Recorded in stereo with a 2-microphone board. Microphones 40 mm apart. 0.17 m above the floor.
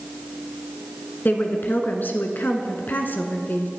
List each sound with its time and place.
1.2 s a woman speaking: 55° left (ahead or behind), 1.8 m